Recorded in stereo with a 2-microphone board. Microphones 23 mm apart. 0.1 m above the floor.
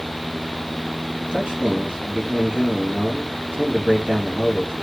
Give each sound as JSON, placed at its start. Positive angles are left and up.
{"t": 1.3, "sound": "a man speaking", "side_deg": -60, "distance_m": 3.0}